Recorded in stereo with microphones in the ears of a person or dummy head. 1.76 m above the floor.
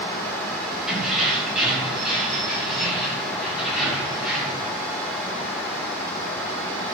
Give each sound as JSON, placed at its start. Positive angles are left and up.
{"t": 0.9, "sound": "keys jangling", "side_deg": 0, "distance_m": 6.5}